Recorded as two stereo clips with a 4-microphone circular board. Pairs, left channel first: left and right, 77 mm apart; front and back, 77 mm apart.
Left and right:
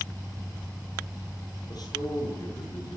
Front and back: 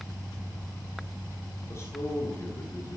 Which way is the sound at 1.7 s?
55° left.